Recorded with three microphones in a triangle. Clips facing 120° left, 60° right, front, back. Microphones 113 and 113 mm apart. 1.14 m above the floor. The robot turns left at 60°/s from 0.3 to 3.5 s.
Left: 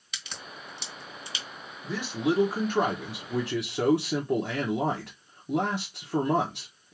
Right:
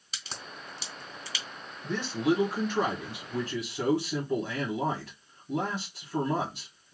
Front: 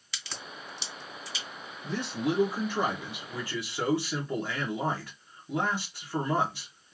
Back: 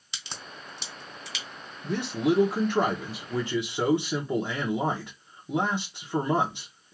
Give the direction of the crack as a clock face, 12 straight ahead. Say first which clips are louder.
Even, even; 4 o'clock.